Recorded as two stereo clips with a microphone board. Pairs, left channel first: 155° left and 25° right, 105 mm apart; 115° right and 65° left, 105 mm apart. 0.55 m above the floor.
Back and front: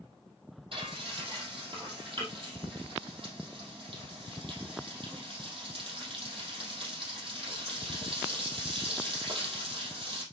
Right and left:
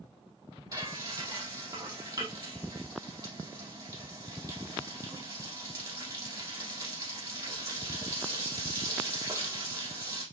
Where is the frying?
15° left, 4.5 m.